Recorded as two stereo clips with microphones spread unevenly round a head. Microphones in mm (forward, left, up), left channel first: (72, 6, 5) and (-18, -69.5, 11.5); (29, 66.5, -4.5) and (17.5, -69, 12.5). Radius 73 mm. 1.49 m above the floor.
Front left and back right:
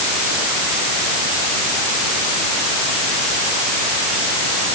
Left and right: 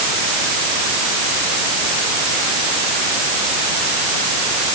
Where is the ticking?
No ticking in this recording.